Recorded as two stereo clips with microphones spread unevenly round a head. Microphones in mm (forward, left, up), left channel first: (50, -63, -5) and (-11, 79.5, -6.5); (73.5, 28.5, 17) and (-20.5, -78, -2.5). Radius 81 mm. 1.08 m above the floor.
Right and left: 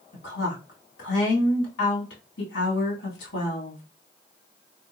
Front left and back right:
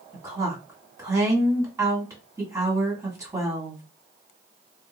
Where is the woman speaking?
65° right, 2 m.